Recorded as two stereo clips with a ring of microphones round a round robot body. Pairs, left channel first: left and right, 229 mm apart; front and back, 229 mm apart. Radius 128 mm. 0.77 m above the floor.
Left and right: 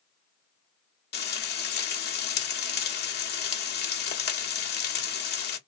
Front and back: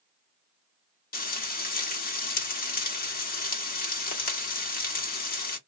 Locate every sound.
1.1 s frying: 50° left, 1.2 m